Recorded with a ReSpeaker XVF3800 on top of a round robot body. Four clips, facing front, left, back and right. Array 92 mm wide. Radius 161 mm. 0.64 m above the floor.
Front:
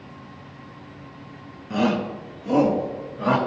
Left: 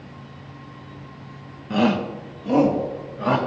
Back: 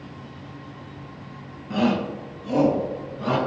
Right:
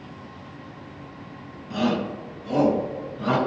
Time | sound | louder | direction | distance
1.7 | a shout | left 4 dB, even | 85° left | 1.5 m